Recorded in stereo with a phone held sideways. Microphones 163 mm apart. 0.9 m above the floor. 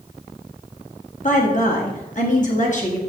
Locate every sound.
1.2 s a woman speaking: 50° left (ahead or behind), 2.0 m